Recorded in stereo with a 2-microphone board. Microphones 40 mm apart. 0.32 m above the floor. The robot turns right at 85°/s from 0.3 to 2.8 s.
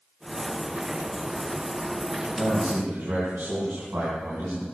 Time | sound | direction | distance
2.4 | a man speaking | 130° right | 3.5 m